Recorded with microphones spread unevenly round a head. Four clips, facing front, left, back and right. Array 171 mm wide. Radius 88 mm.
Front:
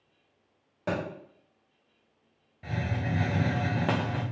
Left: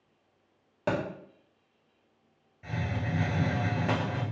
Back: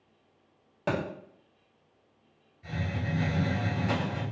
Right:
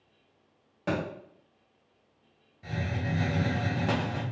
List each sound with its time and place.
0.9 s a thud: 110° left, 1.4 m
2.6 s a hiss: straight ahead, 0.7 m